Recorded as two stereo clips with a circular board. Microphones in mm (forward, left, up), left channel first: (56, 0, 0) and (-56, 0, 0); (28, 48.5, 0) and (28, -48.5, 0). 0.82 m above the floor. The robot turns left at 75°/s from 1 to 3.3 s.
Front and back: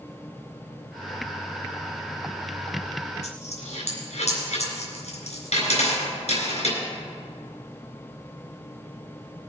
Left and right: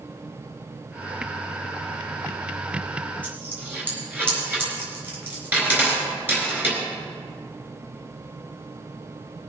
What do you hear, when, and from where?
3.2 s a dropped coin: 15° right, 4 m; by 6.8 s 20° right, 4 m